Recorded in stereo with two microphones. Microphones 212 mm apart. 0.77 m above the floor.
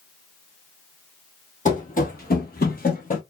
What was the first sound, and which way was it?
Running footsteps, 35° left (ahead or behind).